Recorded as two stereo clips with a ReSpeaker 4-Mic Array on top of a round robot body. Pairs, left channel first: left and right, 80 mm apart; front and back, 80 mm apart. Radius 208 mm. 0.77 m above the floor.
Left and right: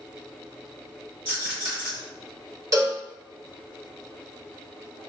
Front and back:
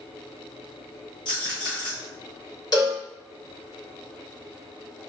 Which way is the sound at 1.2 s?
35° right.